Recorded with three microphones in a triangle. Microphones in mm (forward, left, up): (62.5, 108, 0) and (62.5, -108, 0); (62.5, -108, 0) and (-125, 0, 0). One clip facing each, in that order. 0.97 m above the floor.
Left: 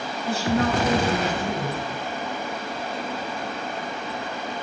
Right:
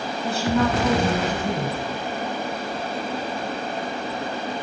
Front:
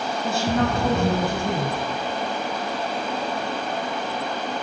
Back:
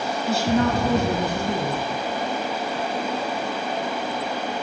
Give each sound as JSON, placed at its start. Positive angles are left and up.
{"t": 0.2, "sound": "a woman speaking", "azimuth_deg": -65, "distance_m": 7.5}